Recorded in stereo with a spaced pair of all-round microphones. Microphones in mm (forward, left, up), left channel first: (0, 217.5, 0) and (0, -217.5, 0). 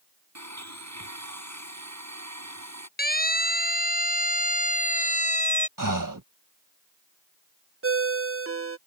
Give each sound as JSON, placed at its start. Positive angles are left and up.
{"t": 0.3, "sound": "a blender", "side_deg": -40}
{"t": 3.0, "sound": "a siren", "side_deg": 20}
{"t": 5.8, "sound": "breathing", "side_deg": -45}
{"t": 7.8, "sound": "a ringtone", "side_deg": -30}